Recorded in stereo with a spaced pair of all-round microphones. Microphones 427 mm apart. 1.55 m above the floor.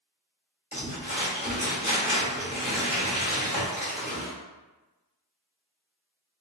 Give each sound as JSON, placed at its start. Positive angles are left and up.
{"t": 0.7, "sound": "crumpling", "side_deg": 15, "distance_m": 1.2}